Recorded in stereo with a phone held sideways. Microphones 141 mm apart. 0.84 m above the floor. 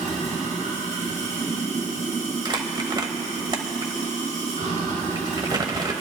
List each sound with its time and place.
0.0 s running water: 60° right (ahead or behind), 4.5 m
2.5 s crumpling: 30° right (ahead or behind), 0.8 m